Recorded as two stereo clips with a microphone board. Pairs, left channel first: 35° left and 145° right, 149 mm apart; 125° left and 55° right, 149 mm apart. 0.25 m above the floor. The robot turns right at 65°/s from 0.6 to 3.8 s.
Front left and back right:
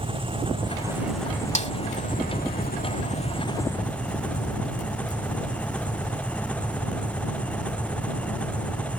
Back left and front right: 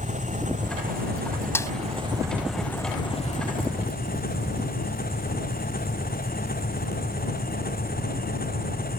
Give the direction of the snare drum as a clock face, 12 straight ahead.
10 o'clock.